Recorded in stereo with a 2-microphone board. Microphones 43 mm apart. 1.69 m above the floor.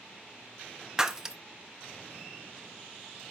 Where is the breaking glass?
15° right (ahead or behind), 0.8 m.